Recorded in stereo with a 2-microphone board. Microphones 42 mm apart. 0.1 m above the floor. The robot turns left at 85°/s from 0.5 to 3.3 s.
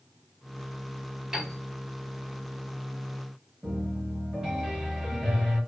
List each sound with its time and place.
1.3 s a piano: 10° right (ahead or behind), 1.3 m; by 1.6 s 25° right (ahead or behind), 1.3 m
3.6 s a piano: 20° right (ahead or behind), 1.4 m